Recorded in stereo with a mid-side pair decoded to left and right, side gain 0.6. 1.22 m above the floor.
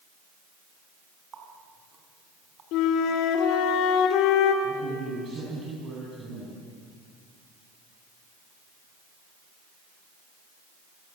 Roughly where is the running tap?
Ahead right.